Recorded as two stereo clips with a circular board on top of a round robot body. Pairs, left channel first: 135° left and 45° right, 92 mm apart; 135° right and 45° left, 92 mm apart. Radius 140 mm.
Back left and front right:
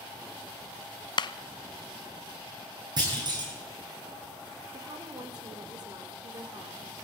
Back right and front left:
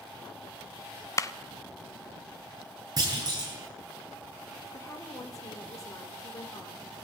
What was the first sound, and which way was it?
A clap, 170° left.